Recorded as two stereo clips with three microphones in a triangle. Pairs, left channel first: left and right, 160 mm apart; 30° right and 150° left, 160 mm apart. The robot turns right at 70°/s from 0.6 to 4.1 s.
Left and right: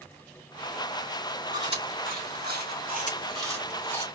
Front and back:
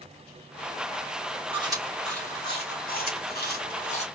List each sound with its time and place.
1.5 s chewing: 155° right, 2.5 m; by 4.1 s 20° left, 2.5 m